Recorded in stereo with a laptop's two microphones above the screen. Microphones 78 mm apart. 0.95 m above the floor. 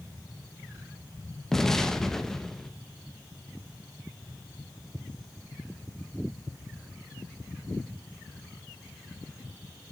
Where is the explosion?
5° left (ahead or behind), 0.5 m.